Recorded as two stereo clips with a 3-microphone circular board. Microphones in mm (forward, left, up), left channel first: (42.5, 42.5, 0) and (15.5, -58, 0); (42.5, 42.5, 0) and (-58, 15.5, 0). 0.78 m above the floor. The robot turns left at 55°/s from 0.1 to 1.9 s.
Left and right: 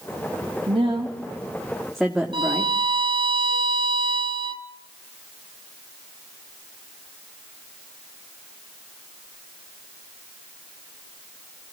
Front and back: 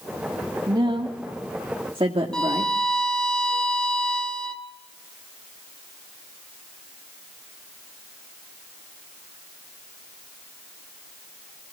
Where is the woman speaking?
125° right, 1.8 m; by 2.7 s 165° left, 1.8 m.